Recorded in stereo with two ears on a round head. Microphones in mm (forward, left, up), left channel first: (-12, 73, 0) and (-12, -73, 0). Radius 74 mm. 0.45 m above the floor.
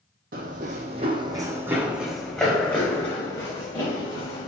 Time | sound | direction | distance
0.3 | running footsteps | 60° right (ahead or behind) | 0.8 m